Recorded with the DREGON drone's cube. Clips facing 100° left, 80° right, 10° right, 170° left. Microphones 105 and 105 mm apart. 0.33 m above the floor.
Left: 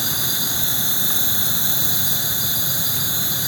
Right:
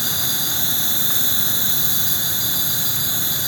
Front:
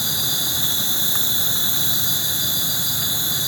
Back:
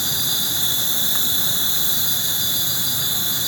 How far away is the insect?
About 4 m.